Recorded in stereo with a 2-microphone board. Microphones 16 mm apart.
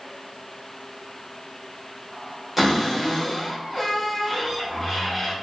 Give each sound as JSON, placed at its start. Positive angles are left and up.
{"t": 2.6, "sound": "a cupboard door", "side_deg": -20, "distance_m": 1.1}